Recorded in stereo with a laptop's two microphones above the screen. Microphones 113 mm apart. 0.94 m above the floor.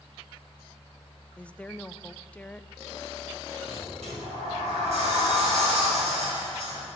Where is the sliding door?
80° right, 5 m.